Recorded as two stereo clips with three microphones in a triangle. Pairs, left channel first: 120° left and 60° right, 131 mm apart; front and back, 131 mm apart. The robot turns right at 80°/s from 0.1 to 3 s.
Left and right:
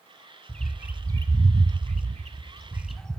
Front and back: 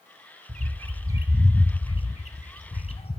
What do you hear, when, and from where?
0.5 s a bird: 165° right, 1.3 m; by 3.2 s 35° left, 1.3 m